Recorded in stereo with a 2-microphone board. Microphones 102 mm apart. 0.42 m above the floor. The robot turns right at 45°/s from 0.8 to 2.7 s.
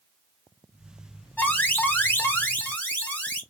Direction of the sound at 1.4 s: 15° left (ahead or behind).